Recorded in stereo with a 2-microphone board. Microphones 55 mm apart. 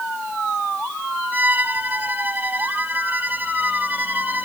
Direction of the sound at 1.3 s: 35° right (ahead or behind).